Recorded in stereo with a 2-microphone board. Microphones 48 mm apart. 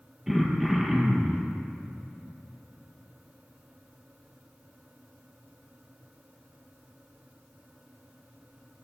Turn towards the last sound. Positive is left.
turn(degrees=-10)  # may be behind; listen again after turning